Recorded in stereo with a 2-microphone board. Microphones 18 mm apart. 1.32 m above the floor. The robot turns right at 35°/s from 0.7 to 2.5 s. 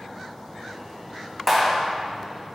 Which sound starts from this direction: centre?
A clap, at 1.5 s.